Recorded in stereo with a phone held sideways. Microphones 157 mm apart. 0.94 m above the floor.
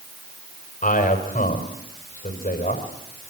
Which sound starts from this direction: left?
A man speaking, at 0.8 s.